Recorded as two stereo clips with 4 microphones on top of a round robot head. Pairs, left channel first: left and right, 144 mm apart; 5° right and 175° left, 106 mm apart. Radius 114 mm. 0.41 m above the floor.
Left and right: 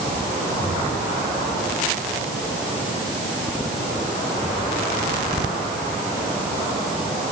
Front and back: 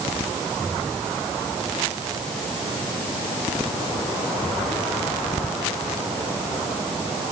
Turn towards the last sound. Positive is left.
No sound to turn to.